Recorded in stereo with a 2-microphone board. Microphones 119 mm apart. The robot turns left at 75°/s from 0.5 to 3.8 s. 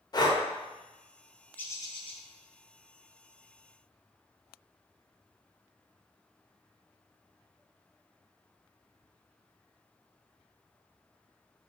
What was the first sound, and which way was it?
Breathing, 35° left (ahead or behind).